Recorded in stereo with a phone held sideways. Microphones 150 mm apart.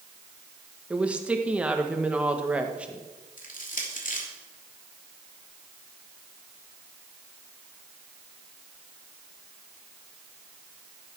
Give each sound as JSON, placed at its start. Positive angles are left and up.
{"t": 0.9, "sound": "a woman speaking", "side_deg": -10, "distance_m": 1.5}
{"t": 3.4, "sound": "crushing", "side_deg": 60, "distance_m": 3.0}